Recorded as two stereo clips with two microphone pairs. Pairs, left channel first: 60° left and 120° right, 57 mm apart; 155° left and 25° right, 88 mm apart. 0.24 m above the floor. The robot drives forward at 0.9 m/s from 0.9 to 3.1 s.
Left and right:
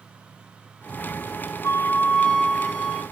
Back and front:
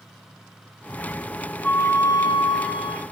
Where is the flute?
80° left, 0.6 m; by 3.0 s 155° left, 1.3 m.